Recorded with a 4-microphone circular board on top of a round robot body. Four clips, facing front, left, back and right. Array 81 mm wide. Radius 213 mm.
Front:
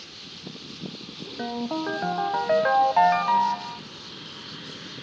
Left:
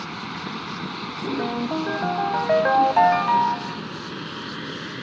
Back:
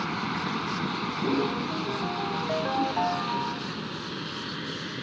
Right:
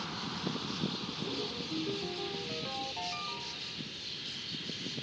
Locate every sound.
0.0 s a vehicle: 160° left; by 5.0 s 110° left
1.4 s a ringtone: 55° left